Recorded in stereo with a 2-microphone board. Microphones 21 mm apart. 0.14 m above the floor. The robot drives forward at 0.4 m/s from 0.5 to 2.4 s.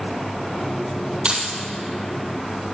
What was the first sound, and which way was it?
Keys jangling, 45° right (ahead or behind).